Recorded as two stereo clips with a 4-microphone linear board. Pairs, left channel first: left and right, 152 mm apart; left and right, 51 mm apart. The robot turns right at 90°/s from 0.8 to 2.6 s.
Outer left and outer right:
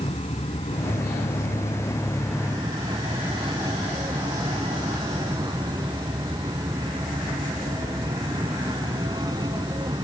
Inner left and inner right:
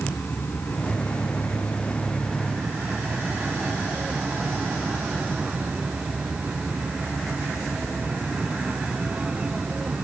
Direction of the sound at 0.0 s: 45° left.